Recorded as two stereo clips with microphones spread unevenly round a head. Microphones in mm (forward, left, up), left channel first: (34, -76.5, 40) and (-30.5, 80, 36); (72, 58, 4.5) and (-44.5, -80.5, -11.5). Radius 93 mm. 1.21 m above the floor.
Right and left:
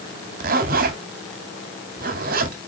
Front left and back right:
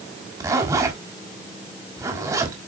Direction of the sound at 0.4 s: 155° left.